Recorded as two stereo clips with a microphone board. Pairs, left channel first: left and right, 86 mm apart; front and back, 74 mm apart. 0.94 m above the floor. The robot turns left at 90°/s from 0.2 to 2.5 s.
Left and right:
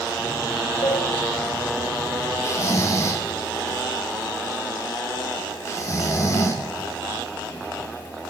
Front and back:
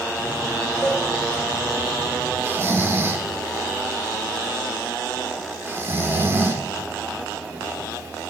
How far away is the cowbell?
About 2.5 m.